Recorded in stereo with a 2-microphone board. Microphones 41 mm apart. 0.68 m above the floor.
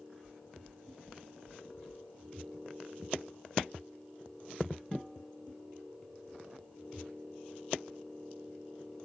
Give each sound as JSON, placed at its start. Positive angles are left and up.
{"t": 0.2, "sound": "knocking", "side_deg": -50}